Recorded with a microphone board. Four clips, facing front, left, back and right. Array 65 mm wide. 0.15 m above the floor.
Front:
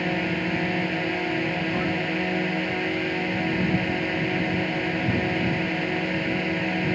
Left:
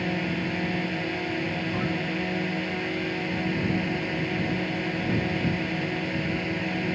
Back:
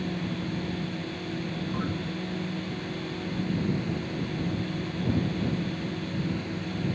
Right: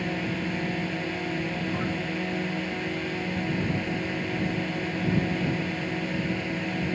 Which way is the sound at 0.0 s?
5° left.